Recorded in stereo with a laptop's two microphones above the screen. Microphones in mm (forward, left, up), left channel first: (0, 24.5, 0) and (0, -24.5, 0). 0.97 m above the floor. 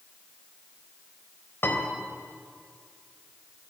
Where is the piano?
50° left (ahead or behind), 4 m.